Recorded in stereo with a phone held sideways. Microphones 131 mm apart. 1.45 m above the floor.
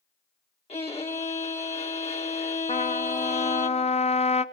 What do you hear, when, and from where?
0.7 s a violin: 50° left (ahead or behind), 1.8 m
2.7 s a trumpet: 55° left (ahead or behind), 0.6 m